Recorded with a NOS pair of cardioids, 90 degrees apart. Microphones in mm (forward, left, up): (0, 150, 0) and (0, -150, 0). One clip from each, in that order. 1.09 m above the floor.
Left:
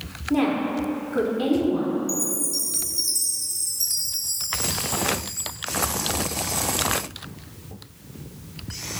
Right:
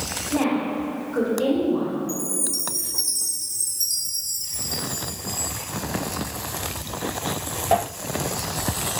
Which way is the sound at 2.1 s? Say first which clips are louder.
Left 1 dB; 10° left.